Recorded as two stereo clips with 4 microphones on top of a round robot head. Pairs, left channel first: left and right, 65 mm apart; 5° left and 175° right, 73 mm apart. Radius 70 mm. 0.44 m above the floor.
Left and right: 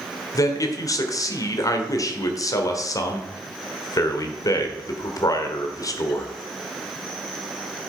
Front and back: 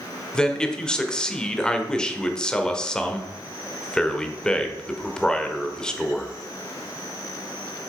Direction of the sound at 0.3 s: 80° left.